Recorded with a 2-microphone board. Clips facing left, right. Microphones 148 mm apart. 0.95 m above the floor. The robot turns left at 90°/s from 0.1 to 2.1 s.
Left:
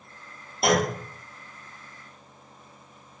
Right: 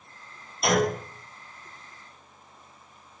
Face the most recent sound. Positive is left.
turn(degrees=-5)